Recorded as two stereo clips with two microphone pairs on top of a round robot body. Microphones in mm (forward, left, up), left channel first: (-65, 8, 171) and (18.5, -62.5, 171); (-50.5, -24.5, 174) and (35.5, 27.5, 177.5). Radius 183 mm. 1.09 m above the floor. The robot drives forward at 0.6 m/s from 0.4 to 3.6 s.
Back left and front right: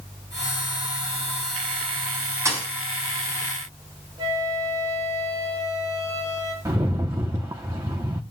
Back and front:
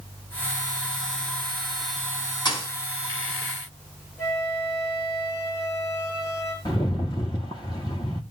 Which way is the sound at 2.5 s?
105° right.